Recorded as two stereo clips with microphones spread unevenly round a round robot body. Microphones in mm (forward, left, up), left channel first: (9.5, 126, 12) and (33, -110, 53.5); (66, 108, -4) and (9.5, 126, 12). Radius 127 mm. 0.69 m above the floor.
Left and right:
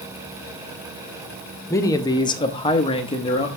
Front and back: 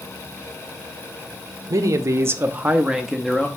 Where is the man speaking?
155° left, 0.8 m; by 3.5 s 45° left, 0.9 m.